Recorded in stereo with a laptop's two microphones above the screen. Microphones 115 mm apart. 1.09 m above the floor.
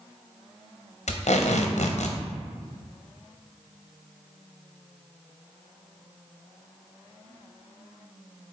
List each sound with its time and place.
1.1 s tape being pulled: 80° left, 0.5 m